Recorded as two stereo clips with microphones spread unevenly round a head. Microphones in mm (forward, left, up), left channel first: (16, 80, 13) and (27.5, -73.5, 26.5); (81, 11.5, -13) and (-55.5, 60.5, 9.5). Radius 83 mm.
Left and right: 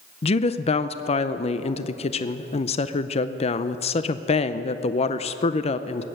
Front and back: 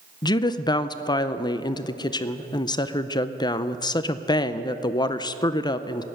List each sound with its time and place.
0.2 s a woman speaking: 45° left, 0.5 m